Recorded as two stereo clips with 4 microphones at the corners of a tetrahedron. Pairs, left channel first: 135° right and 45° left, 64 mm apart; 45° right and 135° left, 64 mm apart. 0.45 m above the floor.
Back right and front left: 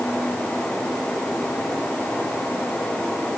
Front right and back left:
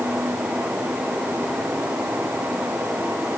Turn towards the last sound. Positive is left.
No sound to turn to.